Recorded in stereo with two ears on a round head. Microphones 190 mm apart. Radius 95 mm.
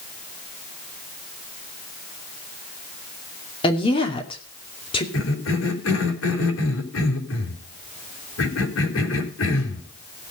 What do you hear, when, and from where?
3.6 s a woman speaking: 25° left (ahead or behind), 2.5 m
5.1 s a cough: 70° left (ahead or behind), 4 m